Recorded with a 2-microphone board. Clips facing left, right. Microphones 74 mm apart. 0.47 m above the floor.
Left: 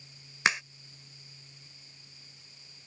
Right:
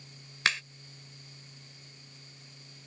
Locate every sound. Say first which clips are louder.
0.5 s a crack: left 2 dB; 20° left (ahead or behind)